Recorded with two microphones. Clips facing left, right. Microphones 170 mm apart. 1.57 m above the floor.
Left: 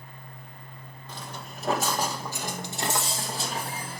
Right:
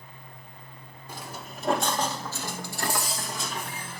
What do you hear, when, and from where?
1.1 s footsteps: 10° right (ahead or behind), 1.7 m; by 4.0 s 40° left (ahead or behind), 2 m